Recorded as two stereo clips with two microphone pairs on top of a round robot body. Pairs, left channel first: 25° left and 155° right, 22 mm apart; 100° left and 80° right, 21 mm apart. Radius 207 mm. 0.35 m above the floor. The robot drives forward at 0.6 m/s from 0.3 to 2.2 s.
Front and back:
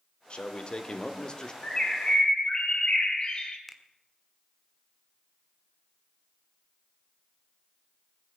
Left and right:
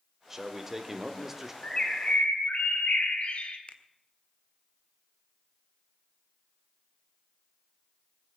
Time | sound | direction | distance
0.3 | a man speaking | straight ahead | 2.5 m
1.6 | a bird | 70° left | 3 m
3.7 | a finger snap | 110° left | 1.7 m